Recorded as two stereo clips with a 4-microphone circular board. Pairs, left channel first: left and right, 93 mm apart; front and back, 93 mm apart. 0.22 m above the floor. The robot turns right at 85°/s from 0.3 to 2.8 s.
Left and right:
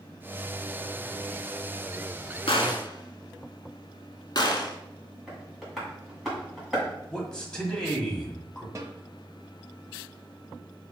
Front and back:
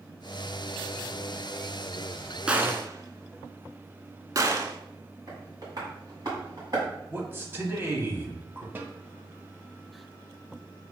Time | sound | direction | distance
2.5 | a gunshot | 100° left | 0.5 m
5.3 | tapping | straight behind | 2 m
7.1 | a man speaking | 160° left | 1.0 m
8.8 | a snare drum | 125° right | 0.6 m